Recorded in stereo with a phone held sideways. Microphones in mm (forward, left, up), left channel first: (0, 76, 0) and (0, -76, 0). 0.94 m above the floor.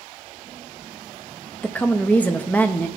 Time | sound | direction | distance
1.6 | a woman speaking | 10° left (ahead or behind) | 0.6 m